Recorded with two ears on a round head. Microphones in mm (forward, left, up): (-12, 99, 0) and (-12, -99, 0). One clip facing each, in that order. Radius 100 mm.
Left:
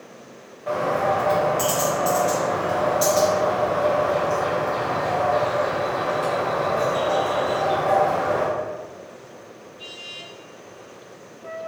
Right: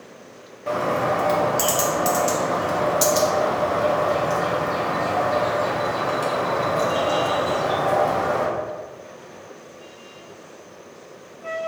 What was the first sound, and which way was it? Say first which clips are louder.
A bird: even; 30° right (ahead or behind).